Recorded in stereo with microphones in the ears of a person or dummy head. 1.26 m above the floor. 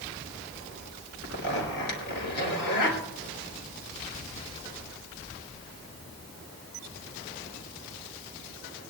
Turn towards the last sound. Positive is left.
turn(degrees=60)  # may be behind; listen again after turning